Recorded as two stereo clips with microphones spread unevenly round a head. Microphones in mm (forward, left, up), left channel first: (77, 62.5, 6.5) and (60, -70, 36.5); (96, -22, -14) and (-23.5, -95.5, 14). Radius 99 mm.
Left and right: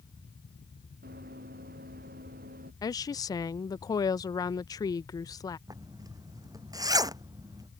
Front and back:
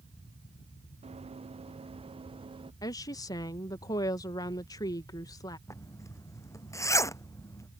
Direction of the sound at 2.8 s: 65° left.